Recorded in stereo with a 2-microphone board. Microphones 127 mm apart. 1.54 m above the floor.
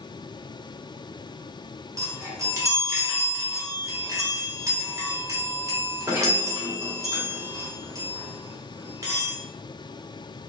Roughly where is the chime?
Right.